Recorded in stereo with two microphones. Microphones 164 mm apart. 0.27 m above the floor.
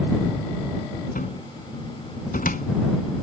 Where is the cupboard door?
60° left (ahead or behind).